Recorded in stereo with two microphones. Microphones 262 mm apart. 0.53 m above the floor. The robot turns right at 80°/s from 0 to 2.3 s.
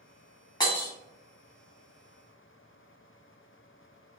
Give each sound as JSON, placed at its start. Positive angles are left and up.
{"t": 0.6, "sound": "breaking glass", "side_deg": 15, "distance_m": 1.0}